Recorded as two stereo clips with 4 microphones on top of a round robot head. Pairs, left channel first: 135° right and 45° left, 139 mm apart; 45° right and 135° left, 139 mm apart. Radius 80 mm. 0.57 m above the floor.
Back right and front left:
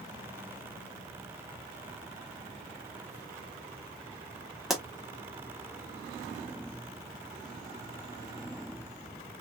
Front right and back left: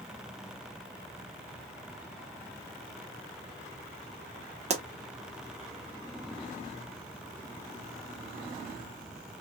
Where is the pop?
135° left, 1.2 m.